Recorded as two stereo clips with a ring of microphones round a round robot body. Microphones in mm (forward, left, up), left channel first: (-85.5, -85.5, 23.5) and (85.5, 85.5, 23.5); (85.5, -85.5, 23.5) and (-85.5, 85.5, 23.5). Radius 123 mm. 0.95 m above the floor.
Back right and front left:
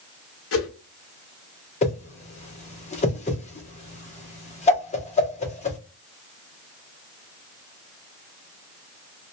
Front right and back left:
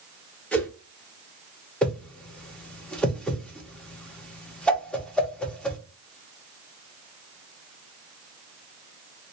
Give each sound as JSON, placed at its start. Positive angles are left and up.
{"t": 0.5, "sound": "a whoosh", "azimuth_deg": -130, "distance_m": 0.8}
{"t": 1.8, "sound": "a whoosh", "azimuth_deg": -125, "distance_m": 0.8}